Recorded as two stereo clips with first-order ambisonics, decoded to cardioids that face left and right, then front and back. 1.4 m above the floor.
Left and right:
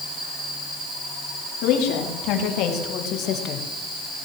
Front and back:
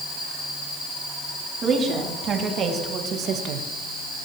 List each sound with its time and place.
1.6 s a woman speaking: 115° left, 4 m; by 3.7 s 135° left, 1.8 m